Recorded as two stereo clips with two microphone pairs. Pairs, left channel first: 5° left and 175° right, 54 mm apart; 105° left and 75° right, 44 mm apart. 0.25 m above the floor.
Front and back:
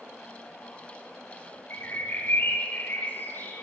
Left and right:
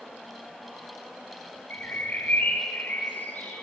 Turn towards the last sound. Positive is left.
turn(degrees=55)